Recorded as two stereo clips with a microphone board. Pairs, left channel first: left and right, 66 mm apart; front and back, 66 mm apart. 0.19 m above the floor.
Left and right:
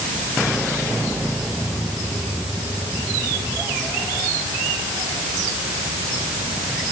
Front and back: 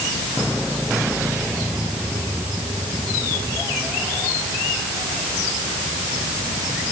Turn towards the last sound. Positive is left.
No sound to turn to.